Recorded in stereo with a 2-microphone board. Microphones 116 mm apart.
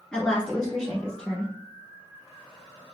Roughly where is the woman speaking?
Centre.